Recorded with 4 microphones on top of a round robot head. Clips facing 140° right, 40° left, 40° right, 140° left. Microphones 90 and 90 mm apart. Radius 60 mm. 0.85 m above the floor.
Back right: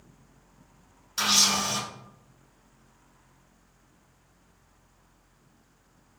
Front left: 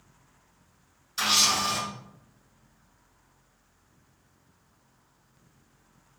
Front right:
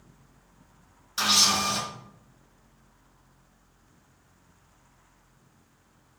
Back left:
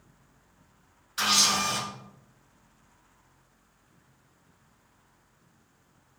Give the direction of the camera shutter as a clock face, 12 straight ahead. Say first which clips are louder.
Front left 1 dB, front right 1 dB; 3 o'clock.